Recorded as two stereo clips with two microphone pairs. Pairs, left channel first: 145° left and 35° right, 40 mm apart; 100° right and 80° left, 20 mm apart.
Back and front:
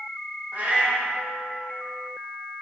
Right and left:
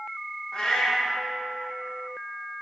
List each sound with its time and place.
0.5 s a cat meowing: 65° right, 1.1 m